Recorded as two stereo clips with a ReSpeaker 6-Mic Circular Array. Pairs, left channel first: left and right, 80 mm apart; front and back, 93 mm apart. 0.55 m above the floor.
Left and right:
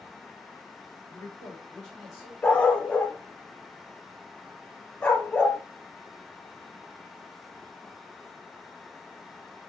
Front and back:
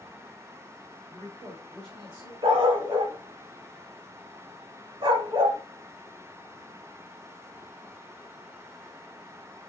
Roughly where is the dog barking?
Behind.